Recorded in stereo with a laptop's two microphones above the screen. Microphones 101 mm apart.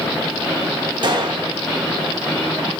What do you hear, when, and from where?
1.0 s a gunshot: 50° right (ahead or behind), 0.8 m